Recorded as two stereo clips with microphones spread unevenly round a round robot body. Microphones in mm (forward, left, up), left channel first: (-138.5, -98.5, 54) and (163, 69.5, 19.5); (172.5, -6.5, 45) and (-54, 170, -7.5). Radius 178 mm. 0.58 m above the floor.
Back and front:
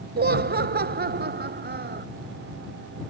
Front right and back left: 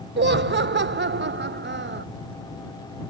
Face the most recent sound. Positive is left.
turn(degrees=90)